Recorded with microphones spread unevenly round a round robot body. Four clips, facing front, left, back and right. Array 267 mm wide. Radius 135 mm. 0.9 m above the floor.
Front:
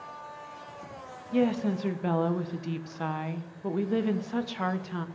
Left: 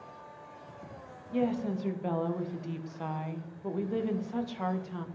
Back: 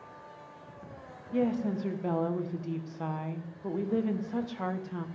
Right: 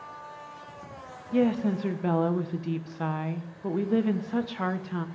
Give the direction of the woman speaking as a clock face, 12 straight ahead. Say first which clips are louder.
Right 6 dB, front 3 dB; 2 o'clock.